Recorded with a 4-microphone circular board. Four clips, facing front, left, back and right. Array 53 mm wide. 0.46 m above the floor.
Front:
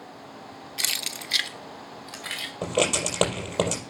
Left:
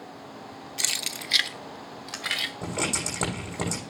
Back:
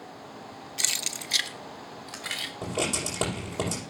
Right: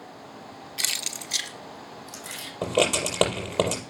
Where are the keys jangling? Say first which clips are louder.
Even, front 2 dB; 40° right, 0.7 m; by 2.5 s 90° left, 1.7 m.